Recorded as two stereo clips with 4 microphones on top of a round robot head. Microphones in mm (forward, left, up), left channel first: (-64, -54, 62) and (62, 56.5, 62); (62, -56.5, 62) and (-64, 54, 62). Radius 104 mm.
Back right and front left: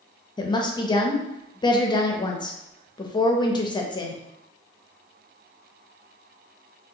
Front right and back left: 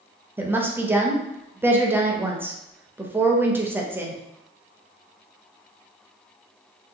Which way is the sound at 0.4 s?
160° right.